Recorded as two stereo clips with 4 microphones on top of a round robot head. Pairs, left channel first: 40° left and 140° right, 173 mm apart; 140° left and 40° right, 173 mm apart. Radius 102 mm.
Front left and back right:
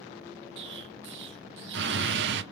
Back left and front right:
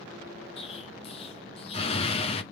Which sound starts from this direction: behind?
An explosion, at 0.6 s.